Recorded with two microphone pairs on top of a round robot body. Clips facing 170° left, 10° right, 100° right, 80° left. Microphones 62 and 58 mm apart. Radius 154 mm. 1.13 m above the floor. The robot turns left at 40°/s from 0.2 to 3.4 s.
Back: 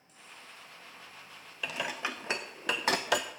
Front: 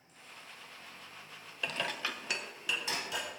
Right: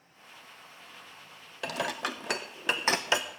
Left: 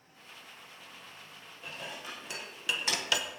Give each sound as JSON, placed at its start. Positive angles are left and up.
{"t": 1.6, "sound": "dishes clattering", "azimuth_deg": -100, "distance_m": 0.6}